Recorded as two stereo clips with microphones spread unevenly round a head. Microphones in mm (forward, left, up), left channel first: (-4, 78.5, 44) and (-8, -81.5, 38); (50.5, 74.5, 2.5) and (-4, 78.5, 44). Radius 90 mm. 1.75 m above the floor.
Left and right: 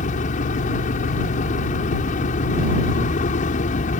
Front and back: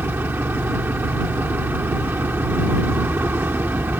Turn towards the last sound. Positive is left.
turn(degrees=135)